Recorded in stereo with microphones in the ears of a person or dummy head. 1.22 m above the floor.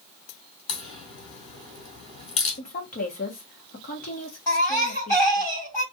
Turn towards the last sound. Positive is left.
turn(degrees=15)  # may be behind; listen again after turning